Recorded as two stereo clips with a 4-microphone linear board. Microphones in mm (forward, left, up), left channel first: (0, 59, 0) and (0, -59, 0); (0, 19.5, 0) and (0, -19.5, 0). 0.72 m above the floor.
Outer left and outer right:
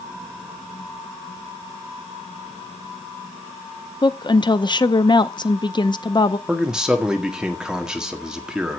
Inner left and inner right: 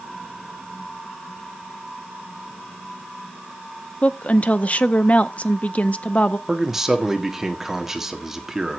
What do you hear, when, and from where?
4.0 s a woman speaking: 40° left (ahead or behind), 0.6 m
6.5 s a man speaking: 5° right (ahead or behind), 1.6 m